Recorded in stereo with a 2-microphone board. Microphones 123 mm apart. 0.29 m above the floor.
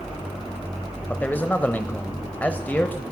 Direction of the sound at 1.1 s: 15° left (ahead or behind).